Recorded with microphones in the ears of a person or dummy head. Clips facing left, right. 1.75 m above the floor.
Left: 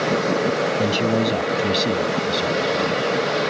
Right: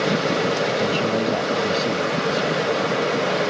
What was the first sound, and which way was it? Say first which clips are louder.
A man speaking: left 1 dB; 25° left (ahead or behind).